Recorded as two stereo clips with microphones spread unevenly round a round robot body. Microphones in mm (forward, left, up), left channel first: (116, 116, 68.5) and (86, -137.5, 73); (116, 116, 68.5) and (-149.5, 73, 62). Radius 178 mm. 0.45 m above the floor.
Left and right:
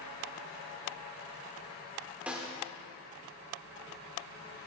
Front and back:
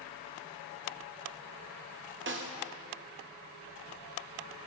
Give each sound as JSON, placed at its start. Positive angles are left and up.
{"t": 2.3, "sound": "a snare drum", "azimuth_deg": 180, "distance_m": 1.2}